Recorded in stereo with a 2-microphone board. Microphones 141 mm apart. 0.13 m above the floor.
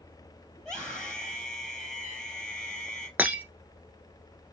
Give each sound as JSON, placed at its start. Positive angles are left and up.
{"t": 0.6, "sound": "a scream", "side_deg": 5, "distance_m": 3.5}
{"t": 3.2, "sound": "breaking glass", "side_deg": -10, "distance_m": 1.2}